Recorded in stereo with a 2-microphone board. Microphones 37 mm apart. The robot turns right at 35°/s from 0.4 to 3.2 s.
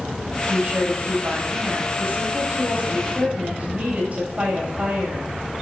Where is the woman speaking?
135° right, 7.5 m; by 5.3 s 40° right, 7.5 m.